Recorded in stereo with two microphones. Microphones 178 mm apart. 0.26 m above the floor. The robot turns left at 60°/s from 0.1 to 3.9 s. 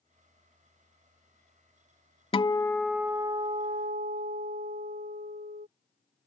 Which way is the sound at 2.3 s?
30° left.